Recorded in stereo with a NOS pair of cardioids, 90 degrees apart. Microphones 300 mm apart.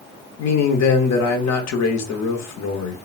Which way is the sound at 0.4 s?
65° left.